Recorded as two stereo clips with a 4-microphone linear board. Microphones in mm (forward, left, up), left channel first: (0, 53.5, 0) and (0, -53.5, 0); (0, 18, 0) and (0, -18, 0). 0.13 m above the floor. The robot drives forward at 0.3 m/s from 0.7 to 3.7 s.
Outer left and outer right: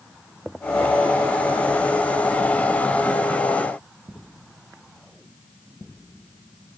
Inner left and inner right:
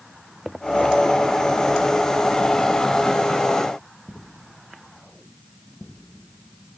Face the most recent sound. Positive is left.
No sound to turn to.